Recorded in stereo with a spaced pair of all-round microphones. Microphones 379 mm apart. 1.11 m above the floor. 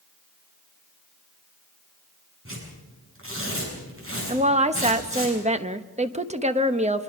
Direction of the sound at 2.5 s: 35° right (ahead or behind).